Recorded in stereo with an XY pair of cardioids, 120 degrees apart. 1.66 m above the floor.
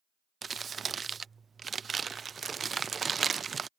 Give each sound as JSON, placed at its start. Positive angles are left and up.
{"t": 0.4, "sound": "crumpling", "azimuth_deg": -35}